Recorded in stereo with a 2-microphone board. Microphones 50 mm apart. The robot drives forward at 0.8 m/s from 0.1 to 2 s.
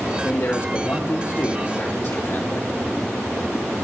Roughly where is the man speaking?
Left.